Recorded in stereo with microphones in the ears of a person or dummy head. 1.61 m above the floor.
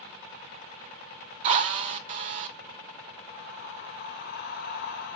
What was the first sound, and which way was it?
A drill, 35° right (ahead or behind).